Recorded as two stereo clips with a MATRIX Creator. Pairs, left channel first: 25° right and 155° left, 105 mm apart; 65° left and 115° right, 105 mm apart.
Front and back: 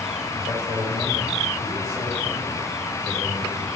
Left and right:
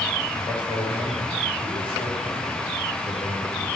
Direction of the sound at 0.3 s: 105° left.